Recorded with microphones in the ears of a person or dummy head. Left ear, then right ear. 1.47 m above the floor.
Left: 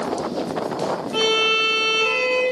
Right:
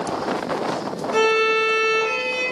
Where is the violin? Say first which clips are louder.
Right 1 dB; 10° left (ahead or behind), 1.3 m.